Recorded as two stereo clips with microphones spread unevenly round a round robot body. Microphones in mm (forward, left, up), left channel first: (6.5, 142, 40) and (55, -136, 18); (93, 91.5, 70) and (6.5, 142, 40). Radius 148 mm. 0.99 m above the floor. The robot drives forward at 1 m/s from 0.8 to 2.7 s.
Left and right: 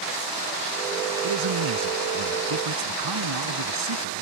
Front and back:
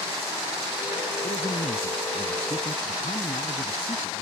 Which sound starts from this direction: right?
A man speaking, at 1.2 s.